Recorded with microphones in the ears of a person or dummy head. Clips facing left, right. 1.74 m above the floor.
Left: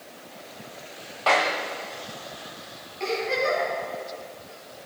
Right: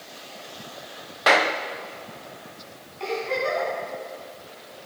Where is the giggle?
20° left (ahead or behind), 7.5 m.